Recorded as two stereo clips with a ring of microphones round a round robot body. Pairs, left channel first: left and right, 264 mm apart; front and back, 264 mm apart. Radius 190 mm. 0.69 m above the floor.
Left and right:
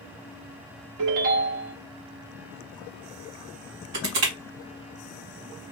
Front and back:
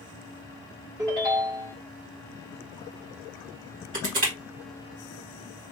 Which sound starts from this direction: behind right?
Crushing, at 3.9 s.